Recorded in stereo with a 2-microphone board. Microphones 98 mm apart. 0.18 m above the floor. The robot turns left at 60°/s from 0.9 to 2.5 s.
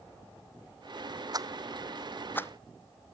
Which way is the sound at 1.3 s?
40° right (ahead or behind).